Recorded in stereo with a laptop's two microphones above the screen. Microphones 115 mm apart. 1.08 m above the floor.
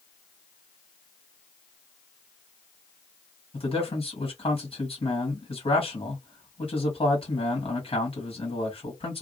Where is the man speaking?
55° left (ahead or behind), 1.8 m.